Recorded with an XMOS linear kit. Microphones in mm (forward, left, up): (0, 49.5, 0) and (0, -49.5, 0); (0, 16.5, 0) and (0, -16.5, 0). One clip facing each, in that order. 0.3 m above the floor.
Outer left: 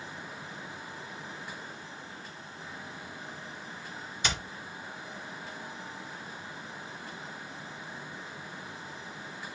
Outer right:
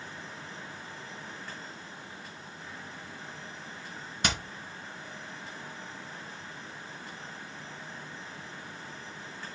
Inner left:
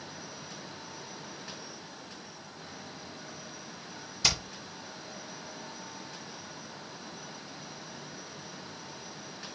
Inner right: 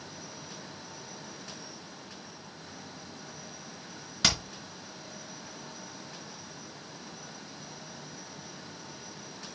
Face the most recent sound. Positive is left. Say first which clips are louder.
# outer right 2 dB, inner right 2 dB
turn(degrees=-70)  # may be behind; listen again after turning